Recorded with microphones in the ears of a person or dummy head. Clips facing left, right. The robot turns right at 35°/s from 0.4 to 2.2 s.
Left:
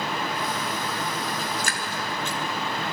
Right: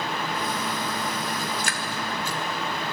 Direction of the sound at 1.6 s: 40° left (ahead or behind).